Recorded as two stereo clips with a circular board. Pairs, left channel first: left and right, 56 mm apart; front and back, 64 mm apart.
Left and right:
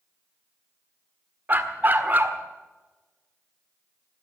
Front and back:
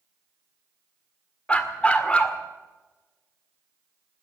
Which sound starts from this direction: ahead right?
A dog barking, at 1.5 s.